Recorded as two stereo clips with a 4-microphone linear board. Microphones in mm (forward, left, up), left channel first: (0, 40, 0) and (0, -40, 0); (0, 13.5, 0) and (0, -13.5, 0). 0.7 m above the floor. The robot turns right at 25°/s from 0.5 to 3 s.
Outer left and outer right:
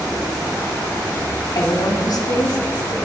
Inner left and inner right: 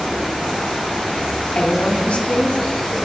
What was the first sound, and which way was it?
A woman speaking, 70° left.